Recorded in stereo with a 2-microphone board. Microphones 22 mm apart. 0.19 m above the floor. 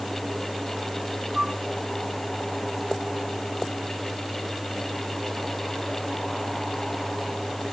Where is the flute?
30° right (ahead or behind).